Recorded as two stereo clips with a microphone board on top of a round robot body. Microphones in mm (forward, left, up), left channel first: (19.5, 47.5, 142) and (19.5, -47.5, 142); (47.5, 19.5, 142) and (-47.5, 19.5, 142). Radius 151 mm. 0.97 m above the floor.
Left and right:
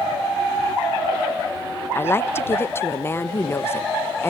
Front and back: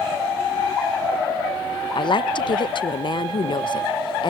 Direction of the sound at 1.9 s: 25° left.